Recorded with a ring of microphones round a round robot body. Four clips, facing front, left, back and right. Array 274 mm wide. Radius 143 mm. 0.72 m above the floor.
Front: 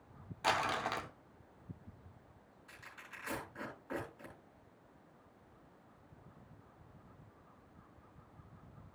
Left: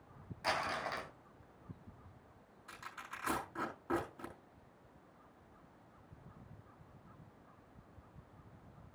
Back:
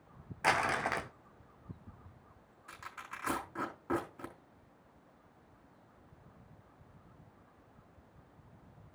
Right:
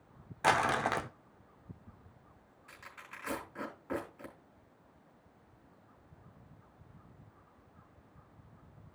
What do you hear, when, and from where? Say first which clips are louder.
0.4 s crumpling: right 9 dB, back 3 dB; 105° right, 0.6 m
2.7 s tearing paper: left 3 dB, back 8 dB; 160° left, 4 m